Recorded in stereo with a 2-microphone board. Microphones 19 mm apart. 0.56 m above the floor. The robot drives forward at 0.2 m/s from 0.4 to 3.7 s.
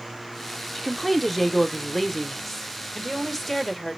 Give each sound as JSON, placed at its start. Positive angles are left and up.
{"t": 0.8, "sound": "a woman speaking", "side_deg": 0, "distance_m": 0.9}